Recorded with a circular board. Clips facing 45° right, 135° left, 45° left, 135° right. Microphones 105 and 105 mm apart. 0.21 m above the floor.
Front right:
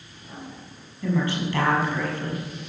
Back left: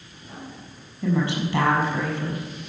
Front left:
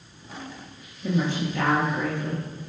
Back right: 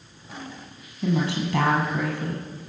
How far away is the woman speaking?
About 6 m.